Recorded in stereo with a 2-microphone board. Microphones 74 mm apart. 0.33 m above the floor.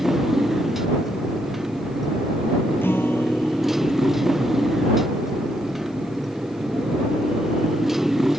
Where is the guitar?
30° left (ahead or behind).